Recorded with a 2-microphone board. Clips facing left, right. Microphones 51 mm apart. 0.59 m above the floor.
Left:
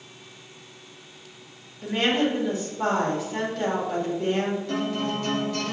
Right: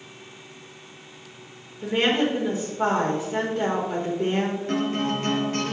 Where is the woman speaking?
25° right (ahead or behind), 1.8 m.